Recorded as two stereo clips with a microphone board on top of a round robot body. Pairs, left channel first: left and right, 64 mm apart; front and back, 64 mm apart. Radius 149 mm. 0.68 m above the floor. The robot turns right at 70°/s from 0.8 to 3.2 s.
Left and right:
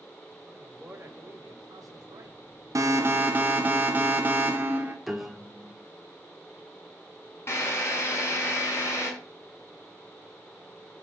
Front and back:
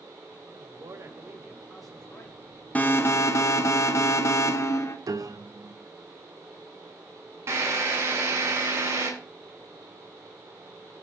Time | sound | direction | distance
0.5 | a man speaking | 160° right | 5 m
2.8 | an alarm | 65° right | 3 m
5.1 | a piano | straight behind | 1.9 m
7.5 | a drill | 140° left | 8.5 m